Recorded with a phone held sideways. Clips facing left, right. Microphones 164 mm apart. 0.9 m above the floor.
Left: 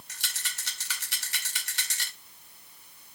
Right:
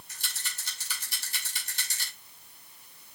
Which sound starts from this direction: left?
A rattle, at 0.1 s.